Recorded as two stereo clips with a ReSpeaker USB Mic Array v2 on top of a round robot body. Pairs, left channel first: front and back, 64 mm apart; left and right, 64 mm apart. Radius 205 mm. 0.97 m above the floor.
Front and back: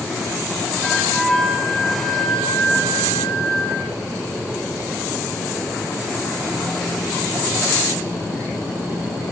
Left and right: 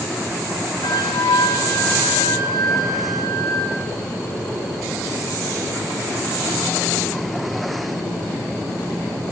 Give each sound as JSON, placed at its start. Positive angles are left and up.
{"t": 0.8, "sound": "a flute", "azimuth_deg": 85, "distance_m": 8.5}